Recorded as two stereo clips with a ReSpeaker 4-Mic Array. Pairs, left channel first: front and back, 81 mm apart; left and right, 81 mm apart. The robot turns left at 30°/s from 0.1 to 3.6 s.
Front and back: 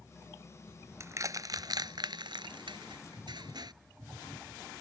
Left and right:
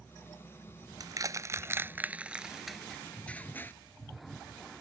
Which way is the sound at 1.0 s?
125° right.